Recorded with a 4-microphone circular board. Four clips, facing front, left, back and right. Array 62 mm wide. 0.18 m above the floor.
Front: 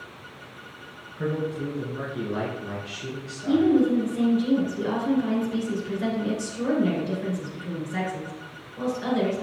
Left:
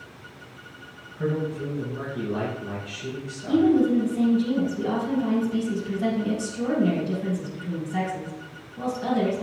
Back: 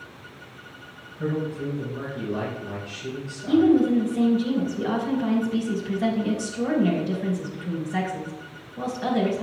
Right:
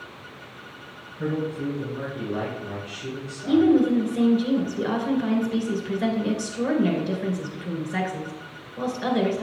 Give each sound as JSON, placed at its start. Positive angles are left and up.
{"t": 1.2, "sound": "a man speaking", "azimuth_deg": 0, "distance_m": 2.5}
{"t": 3.5, "sound": "a woman speaking", "azimuth_deg": -80, "distance_m": 2.0}